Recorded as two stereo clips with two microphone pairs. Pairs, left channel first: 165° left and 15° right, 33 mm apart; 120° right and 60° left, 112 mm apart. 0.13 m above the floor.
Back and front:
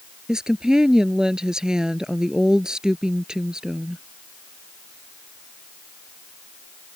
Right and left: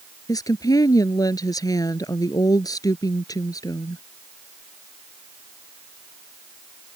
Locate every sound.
0.3 s a woman speaking: 75° right